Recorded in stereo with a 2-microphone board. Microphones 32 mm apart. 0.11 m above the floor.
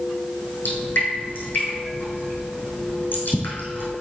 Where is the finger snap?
No finger snap in this recording.